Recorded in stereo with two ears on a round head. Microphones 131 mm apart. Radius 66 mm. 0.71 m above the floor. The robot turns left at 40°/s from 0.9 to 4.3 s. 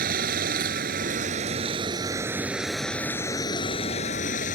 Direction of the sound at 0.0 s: 105° right.